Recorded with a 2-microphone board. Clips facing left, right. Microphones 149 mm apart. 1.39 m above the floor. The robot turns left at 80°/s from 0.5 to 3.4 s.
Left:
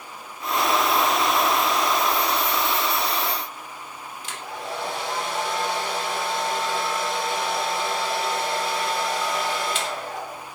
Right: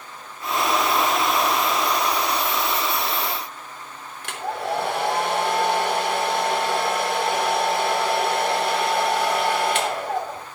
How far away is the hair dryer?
About 3 m.